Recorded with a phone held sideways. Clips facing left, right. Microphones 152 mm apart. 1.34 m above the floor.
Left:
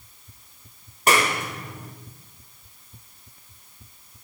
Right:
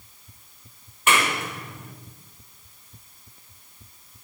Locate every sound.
1.1 s a clap: 35° left (ahead or behind), 4.5 m